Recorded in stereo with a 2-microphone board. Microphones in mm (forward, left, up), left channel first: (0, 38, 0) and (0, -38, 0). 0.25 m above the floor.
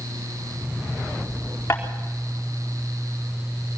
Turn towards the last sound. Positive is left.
turn(degrees=35)  # may be behind; listen again after turning